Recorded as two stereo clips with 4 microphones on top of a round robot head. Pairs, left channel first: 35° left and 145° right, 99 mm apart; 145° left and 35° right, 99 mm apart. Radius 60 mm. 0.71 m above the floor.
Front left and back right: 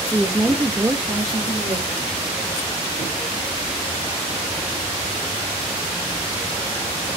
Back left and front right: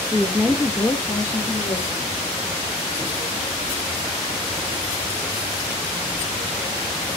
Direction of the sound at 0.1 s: 25° right.